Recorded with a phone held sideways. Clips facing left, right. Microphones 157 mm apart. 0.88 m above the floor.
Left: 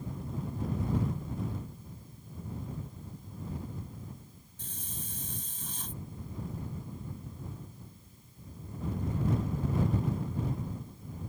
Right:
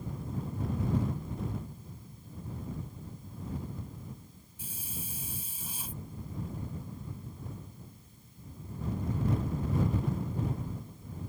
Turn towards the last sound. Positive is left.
turn(degrees=-10)  # may be behind; listen again after turning